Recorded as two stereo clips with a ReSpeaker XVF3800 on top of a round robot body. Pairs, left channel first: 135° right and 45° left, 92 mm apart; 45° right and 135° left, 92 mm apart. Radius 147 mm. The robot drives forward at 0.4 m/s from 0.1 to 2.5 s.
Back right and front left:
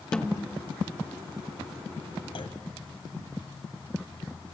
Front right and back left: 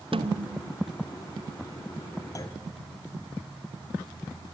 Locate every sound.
0.1 s a snare drum: 145° left, 1.4 m; by 0.8 s 150° left, 1.6 m
2.4 s a clunk: 100° right, 1.7 m